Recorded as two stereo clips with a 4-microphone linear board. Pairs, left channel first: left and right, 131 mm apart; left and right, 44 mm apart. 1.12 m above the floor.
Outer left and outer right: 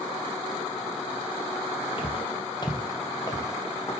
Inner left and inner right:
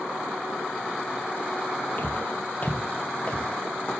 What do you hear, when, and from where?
2.0 s footsteps: 40° left (ahead or behind), 1.9 m; by 3.9 s 20° left (ahead or behind), 2.5 m